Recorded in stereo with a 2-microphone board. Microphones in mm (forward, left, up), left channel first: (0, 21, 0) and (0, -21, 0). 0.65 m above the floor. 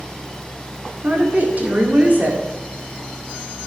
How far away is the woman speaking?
About 2 m.